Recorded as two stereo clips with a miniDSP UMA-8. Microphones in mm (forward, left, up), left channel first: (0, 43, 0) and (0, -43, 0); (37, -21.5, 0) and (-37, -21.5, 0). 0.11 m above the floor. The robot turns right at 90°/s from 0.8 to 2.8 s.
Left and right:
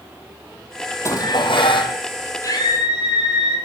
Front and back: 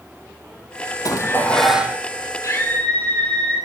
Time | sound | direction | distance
1.1 | dishes clattering | 35° left | 2.5 m
2.4 | a scream | 40° left | 3.5 m